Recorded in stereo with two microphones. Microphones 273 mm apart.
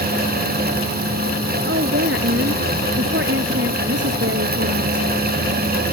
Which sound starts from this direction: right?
A woman speaking, at 1.7 s.